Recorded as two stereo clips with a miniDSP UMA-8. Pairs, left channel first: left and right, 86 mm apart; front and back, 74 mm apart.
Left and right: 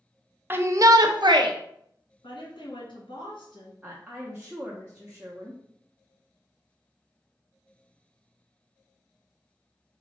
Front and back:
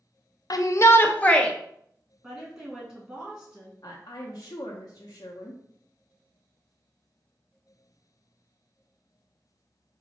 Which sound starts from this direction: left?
A woman speaking, at 2.2 s.